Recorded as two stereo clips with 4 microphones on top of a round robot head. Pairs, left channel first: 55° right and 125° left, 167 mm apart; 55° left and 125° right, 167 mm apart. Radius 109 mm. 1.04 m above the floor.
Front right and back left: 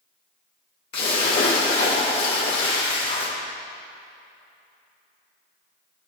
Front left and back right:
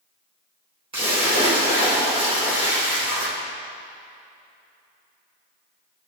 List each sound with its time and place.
0.9 s a splash: 70° right, 4.5 m